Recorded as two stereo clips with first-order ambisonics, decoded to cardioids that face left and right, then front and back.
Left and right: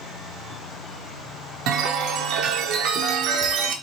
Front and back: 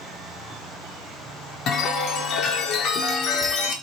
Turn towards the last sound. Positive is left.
turn(degrees=-55)